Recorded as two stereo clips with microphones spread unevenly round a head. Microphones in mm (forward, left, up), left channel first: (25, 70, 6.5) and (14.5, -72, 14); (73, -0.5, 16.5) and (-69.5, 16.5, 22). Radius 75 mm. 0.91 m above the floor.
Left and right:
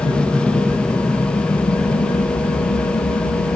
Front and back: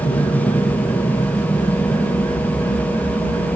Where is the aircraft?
10° left; by 3.6 s 75° left.